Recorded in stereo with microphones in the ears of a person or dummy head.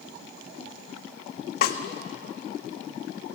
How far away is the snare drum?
About 1.4 m.